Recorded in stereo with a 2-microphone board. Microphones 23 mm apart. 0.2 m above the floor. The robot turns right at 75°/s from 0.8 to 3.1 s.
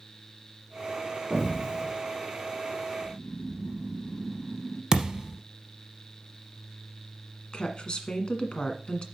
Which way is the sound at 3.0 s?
15° right (ahead or behind).